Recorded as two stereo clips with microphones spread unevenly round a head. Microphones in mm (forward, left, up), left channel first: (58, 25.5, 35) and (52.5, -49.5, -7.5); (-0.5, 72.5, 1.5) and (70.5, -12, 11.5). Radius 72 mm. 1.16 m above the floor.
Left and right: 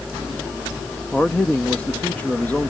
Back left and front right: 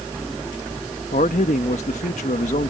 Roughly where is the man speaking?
Behind.